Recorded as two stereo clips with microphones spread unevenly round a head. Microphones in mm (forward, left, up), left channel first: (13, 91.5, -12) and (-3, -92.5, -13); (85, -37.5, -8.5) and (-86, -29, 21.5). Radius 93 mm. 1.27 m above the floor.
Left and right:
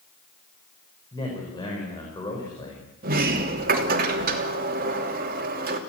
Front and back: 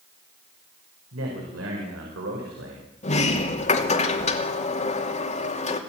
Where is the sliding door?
50° right, 3 m.